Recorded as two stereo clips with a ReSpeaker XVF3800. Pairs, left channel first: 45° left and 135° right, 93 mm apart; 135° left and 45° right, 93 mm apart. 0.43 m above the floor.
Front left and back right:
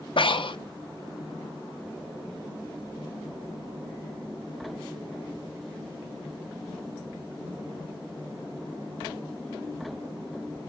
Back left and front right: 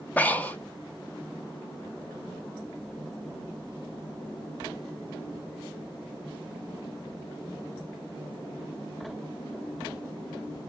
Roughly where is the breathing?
Ahead left.